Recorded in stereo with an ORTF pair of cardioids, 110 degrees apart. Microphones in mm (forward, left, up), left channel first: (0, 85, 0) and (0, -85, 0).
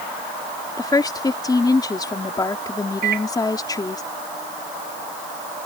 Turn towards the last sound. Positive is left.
turn(degrees=-60)